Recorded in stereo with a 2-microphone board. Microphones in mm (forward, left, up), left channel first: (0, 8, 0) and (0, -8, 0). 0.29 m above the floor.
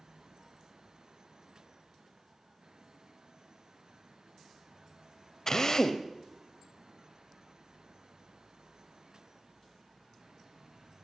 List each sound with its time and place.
5.5 s a drill: 30° left (ahead or behind), 0.7 m